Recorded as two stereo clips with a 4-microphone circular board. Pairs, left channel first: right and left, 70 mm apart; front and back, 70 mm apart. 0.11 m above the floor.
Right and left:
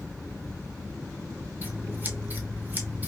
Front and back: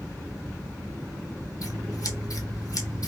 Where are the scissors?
30° left, 0.8 m.